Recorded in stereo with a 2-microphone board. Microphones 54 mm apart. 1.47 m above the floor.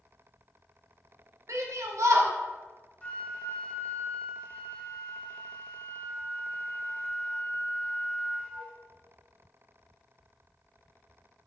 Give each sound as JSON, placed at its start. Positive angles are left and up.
{"t": 1.5, "sound": "a shout", "side_deg": -65, "distance_m": 0.6}
{"t": 3.0, "sound": "a flute", "side_deg": 20, "distance_m": 0.5}